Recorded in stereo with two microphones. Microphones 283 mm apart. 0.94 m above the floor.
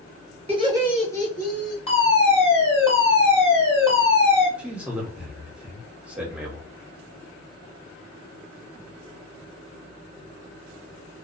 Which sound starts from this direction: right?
Laughter, at 0.5 s.